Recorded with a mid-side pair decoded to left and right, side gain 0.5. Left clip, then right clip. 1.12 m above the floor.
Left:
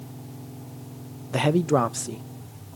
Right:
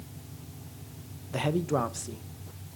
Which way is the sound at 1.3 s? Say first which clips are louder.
Left 7 dB; 45° left.